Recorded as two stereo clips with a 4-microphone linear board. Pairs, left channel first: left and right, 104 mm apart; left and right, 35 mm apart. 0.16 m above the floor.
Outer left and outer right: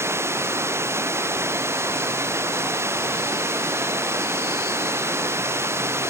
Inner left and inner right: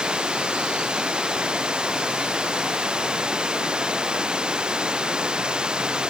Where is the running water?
25° right (ahead or behind).